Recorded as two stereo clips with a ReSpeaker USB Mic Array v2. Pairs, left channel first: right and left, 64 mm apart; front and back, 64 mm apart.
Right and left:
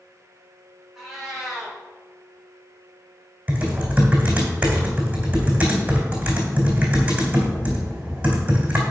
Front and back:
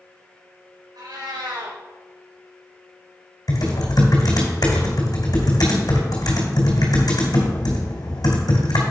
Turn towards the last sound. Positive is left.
turn(degrees=20)